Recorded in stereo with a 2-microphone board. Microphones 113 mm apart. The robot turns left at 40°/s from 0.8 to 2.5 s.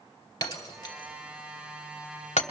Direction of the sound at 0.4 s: 35° left (ahead or behind).